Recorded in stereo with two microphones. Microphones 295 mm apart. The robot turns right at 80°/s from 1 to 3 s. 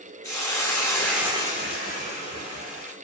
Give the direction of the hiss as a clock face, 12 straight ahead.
6 o'clock.